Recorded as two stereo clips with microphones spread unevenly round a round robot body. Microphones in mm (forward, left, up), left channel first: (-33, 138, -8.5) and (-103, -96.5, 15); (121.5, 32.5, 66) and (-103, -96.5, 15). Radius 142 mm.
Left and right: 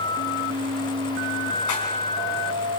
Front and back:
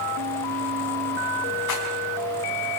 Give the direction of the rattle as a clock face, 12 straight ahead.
10 o'clock.